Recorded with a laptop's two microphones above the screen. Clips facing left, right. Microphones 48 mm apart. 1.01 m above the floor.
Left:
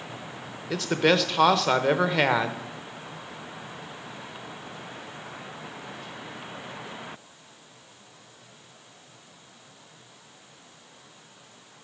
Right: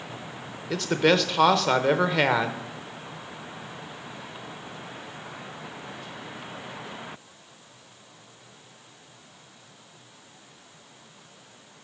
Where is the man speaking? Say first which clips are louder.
Right 1 dB; centre (ahead or behind), 1.0 m.